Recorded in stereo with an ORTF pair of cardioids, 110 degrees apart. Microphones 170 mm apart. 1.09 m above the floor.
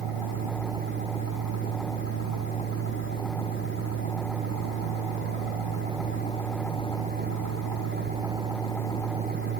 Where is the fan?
70° right, 1.1 m.